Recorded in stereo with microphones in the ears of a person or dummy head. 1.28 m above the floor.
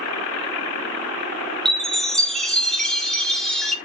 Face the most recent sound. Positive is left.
turn(degrees=5)  # may be behind; listen again after turning